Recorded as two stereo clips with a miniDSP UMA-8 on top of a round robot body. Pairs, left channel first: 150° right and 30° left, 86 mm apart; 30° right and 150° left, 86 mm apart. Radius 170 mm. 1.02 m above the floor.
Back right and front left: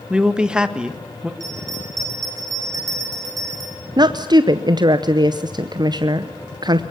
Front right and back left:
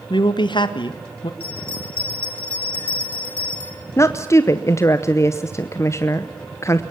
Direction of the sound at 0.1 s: 50° right.